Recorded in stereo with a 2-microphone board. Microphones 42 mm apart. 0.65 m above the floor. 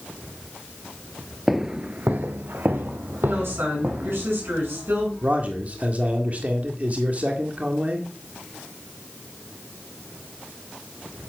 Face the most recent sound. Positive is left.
turn(degrees=-35)  # may be behind; listen again after turning